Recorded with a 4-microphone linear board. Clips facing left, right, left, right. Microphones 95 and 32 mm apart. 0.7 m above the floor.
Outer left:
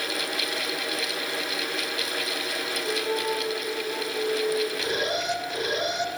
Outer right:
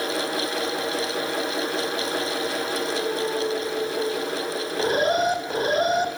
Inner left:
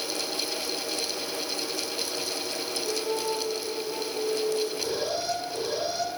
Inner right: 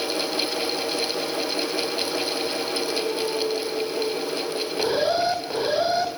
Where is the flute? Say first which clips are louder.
Outer right 2 dB, inner right 3 dB; 20° left (ahead or behind), 8.5 m.